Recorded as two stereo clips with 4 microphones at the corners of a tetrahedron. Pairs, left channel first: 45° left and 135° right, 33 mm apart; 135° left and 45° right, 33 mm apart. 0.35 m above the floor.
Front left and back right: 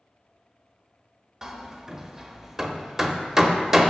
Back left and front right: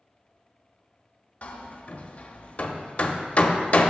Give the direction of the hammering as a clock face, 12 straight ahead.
7 o'clock.